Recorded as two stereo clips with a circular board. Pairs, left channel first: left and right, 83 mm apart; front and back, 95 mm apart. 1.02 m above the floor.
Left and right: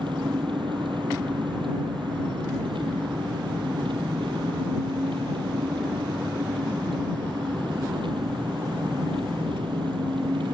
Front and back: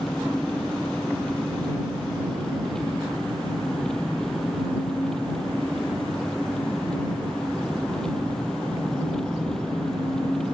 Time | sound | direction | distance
0.0 | an engine running | 85° right | ?